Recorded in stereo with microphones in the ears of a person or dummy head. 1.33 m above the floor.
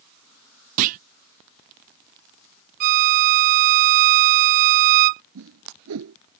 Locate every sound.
0.8 s a clunk: 45° right (ahead or behind)
2.8 s a violin: 50° right (ahead or behind)
5.3 s a whoosh: 80° right